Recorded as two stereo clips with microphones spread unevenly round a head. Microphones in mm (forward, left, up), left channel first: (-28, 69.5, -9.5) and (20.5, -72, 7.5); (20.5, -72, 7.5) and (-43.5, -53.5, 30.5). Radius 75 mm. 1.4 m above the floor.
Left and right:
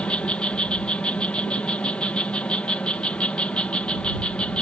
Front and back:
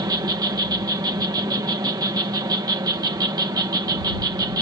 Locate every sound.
0.0 s an insect: 170° right